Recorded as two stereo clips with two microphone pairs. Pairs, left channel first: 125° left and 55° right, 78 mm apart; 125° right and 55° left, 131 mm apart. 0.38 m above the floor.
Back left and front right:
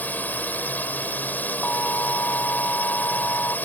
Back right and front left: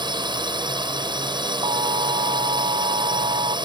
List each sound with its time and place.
0.0 s a drone: 75° left
1.6 s an alarm: 70° left